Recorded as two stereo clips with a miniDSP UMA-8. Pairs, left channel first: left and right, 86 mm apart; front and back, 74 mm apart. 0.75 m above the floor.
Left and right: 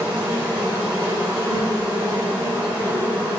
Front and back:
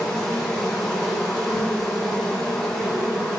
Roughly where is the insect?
Right.